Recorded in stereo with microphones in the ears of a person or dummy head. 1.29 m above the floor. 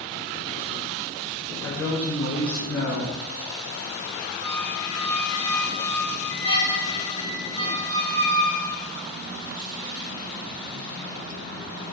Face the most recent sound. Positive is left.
turn(degrees=-25)  # may be behind; listen again after turning